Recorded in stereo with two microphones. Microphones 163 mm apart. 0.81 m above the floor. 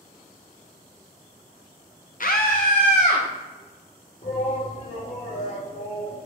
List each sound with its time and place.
2.2 s a scream: 55° left (ahead or behind), 0.7 m; by 3.2 s 45° left (ahead or behind), 1.6 m
4.2 s a shout: 45° left (ahead or behind), 1.9 m